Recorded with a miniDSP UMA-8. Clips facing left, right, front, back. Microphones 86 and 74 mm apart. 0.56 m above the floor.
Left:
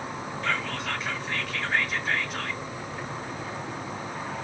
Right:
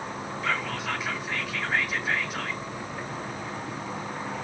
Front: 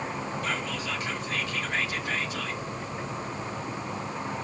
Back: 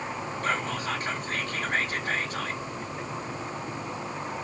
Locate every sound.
0.4 s whispering: 175° right, 0.9 m